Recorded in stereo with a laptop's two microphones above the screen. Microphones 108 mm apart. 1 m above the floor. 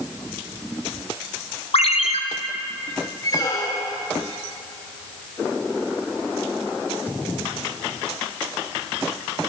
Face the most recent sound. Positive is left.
turn(degrees=35)  # may be behind; listen again after turning